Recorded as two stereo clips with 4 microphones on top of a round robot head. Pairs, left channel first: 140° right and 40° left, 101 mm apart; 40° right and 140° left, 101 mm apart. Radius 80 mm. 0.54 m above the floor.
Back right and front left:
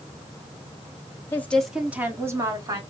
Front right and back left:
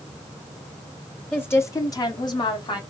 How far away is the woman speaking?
About 1.0 m.